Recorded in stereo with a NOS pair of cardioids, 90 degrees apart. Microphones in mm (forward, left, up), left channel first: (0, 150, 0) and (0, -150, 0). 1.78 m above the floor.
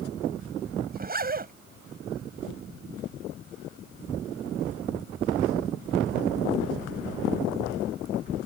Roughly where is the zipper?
Ahead right.